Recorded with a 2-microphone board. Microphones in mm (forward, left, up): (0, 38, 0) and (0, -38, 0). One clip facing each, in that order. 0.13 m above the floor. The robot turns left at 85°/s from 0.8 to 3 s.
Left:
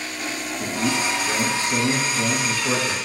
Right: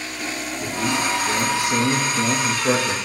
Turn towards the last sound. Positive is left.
turn(degrees=-145)